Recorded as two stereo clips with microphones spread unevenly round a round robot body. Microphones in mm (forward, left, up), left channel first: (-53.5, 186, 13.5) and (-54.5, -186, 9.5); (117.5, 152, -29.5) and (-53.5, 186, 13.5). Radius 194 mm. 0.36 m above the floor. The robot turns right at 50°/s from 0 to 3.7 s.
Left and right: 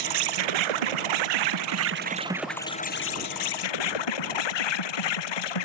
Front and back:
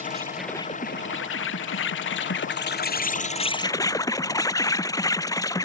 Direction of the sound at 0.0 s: 125° right.